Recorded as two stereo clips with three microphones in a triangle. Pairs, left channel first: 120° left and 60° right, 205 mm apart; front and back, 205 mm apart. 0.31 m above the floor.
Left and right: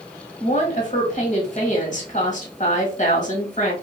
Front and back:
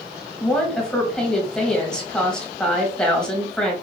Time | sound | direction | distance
0.4 | a woman speaking | 85° left | 1.4 m